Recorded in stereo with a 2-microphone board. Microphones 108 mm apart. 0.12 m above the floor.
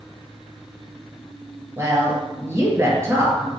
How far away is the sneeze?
I don't hear a sneeze.